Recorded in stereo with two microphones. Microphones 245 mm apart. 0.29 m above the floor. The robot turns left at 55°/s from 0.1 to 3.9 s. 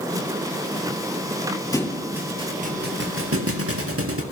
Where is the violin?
I don't hear a violin.